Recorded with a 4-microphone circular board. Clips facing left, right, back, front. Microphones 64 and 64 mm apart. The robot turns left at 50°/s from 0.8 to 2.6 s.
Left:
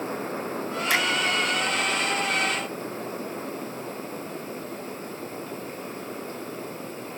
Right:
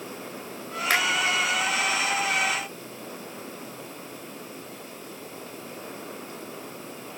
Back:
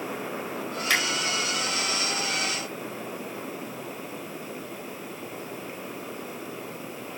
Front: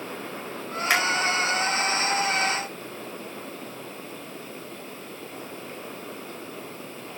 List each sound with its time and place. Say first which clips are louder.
0.9 s a finger snap: right 1 dB, front 2 dB; 70° right, 4.5 m; by 1.0 s 75° right, 4.5 m